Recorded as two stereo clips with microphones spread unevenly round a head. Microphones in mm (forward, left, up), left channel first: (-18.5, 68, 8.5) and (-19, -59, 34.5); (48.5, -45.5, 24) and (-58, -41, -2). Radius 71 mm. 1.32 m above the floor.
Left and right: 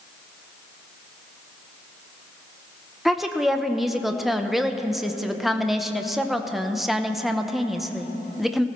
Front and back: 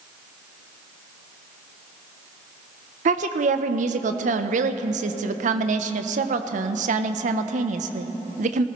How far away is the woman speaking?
About 0.7 m.